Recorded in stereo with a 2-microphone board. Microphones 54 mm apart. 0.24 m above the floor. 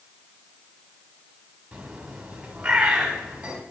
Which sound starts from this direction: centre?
A bird, at 1.7 s.